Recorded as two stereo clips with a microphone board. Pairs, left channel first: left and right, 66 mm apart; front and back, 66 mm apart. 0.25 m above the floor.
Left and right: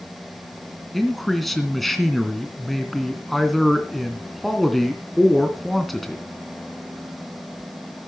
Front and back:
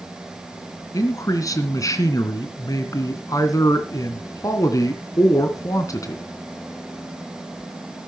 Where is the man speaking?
5° left, 2.5 m.